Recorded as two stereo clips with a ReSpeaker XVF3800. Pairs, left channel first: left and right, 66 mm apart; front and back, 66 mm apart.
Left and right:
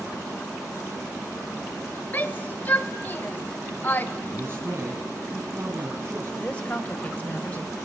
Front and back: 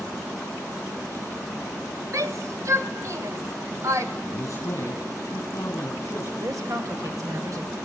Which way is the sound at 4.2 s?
40° right.